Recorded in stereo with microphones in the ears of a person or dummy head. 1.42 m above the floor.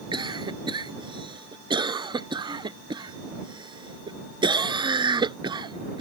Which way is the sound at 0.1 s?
30° right (ahead or behind).